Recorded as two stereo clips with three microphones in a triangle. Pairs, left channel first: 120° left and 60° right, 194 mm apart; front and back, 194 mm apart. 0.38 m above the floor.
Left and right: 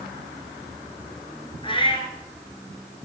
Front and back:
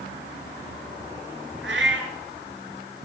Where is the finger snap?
I don't hear a finger snap.